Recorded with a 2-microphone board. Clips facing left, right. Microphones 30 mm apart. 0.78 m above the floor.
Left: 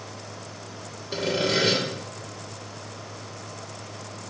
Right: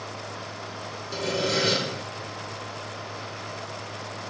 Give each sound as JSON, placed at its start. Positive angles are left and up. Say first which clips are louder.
{"t": 1.1, "sound": "sawing", "louder": "left 2 dB", "side_deg": 30, "distance_m": 1.6}